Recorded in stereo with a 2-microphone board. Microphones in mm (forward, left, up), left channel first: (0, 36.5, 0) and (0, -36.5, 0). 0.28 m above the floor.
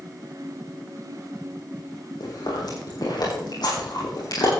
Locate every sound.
2.2 s chewing: 70° left (ahead or behind), 6.5 m